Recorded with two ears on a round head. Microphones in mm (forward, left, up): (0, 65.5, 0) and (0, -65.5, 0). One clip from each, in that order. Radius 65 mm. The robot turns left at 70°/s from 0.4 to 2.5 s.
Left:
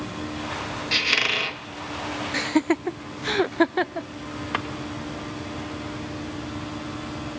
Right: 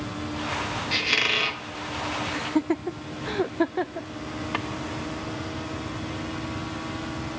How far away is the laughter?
About 0.5 m.